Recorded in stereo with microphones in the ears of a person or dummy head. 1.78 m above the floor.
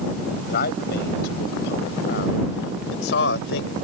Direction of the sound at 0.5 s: 60° left (ahead or behind).